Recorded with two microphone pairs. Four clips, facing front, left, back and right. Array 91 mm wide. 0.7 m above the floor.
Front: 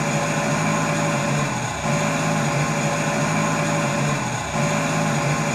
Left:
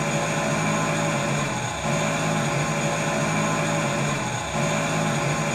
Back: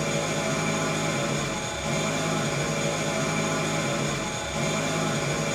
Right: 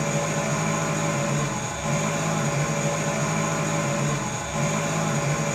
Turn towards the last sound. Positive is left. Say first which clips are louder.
# left 1 dB, front 5 dB
turn(degrees=20)